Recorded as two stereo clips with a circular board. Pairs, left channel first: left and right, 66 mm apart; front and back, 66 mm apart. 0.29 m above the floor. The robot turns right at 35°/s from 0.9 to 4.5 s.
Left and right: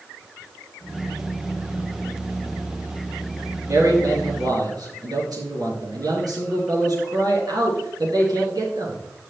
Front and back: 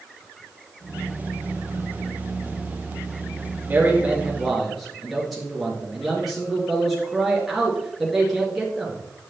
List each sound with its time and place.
3.7 s a man speaking: 120° right, 3.5 m; by 9.0 s 95° right, 3.5 m